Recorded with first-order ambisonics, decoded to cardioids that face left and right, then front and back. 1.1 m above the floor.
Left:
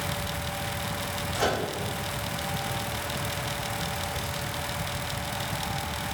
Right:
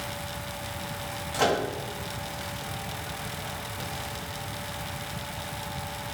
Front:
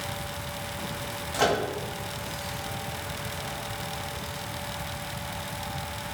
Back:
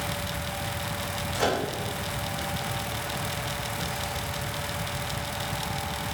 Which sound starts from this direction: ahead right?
A microwave, at 1.3 s.